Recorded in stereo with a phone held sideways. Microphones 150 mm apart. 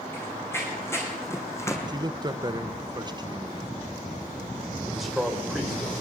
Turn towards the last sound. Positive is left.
turn(degrees=0)  # may be behind; listen again after turning